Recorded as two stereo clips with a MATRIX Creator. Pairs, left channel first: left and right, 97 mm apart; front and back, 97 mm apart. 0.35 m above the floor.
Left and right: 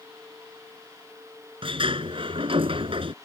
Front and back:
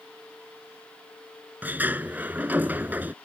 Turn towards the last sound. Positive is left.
turn(degrees=-110)